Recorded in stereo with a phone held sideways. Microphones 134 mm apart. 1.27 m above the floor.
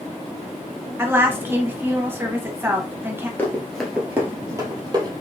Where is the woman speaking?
15° right (ahead or behind), 1.0 m.